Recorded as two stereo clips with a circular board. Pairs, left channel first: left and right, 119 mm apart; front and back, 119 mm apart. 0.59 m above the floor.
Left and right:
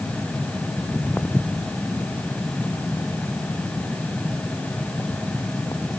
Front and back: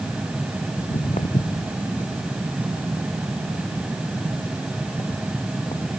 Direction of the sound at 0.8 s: 10° left.